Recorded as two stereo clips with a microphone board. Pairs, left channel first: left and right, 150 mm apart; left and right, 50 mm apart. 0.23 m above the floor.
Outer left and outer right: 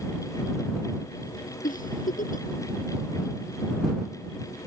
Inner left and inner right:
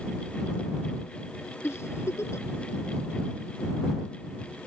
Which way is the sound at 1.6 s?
65° left (ahead or behind).